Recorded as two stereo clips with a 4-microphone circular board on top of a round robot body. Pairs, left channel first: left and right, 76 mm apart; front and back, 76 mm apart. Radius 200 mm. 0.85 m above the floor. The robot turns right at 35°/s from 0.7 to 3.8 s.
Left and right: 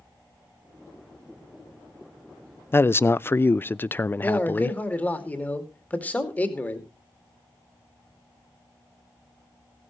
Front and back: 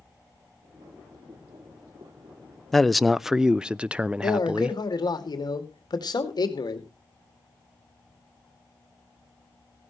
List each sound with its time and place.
2.7 s a man speaking: 80° left, 0.5 m; by 4.8 s 120° left, 0.5 m
4.2 s a man speaking: 20° left, 2.5 m